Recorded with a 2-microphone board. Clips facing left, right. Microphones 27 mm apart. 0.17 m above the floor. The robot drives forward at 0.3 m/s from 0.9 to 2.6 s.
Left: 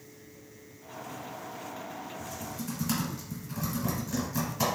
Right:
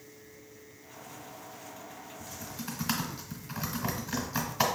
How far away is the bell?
I don't hear a bell.